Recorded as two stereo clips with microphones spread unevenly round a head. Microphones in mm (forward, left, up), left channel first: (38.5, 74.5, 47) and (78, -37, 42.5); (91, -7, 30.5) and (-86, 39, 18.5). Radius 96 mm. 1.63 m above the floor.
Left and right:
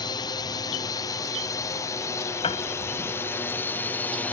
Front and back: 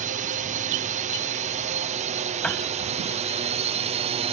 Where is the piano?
70° left.